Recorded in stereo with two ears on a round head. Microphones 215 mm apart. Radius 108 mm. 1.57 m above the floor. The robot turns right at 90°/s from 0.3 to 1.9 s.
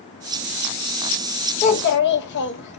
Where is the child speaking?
25° left (ahead or behind), 1.2 m; by 2.8 s 45° left (ahead or behind), 1.2 m.